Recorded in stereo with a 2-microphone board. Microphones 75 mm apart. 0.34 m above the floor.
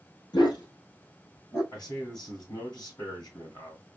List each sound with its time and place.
0.3 s a dog barking: 75° left (ahead or behind), 1.6 m; by 1.6 s 45° left (ahead or behind), 2 m
1.7 s a man speaking: 60° left (ahead or behind), 2.5 m